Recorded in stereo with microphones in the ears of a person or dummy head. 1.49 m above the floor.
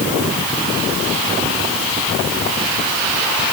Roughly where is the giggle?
I don't hear a giggle.